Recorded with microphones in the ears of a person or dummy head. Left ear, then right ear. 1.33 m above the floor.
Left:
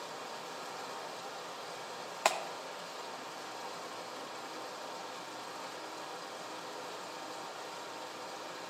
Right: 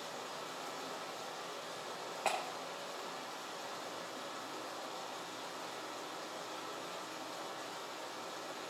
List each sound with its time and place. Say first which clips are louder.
0.0 s running water: left 1 dB; 15° left (ahead or behind), 1.8 m
2.2 s a clap: left 5 dB; 70° left (ahead or behind), 0.8 m